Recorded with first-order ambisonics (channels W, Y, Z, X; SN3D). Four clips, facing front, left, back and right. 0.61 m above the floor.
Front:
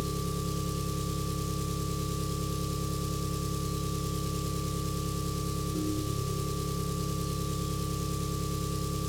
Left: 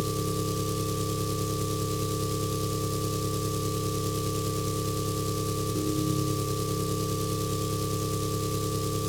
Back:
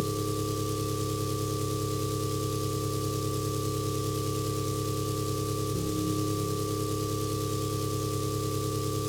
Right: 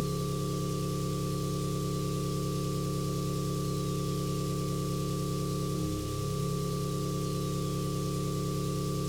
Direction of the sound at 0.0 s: 100° left.